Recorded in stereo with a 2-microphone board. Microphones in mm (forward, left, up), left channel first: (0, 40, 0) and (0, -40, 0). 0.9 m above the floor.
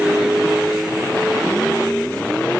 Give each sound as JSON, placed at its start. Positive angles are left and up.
{"t": 0.0, "sound": "a vehicle", "side_deg": -15}